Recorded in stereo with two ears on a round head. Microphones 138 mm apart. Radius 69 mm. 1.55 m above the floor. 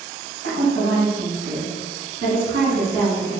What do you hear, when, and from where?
0.4 s a woman speaking: 85° right, 1.8 m; by 3.4 s 70° right (ahead or behind), 3 m